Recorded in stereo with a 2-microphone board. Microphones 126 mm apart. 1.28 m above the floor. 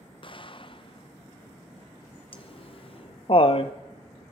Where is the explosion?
45° left (ahead or behind), 0.6 m.